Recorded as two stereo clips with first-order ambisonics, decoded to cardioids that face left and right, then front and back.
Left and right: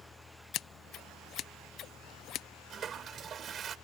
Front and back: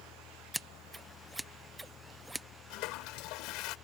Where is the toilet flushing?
25° right.